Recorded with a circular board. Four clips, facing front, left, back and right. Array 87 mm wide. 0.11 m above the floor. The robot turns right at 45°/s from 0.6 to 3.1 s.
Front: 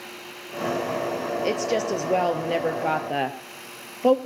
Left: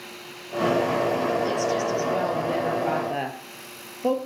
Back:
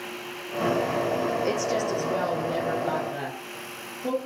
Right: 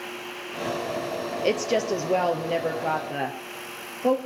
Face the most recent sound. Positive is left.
turn(degrees=5)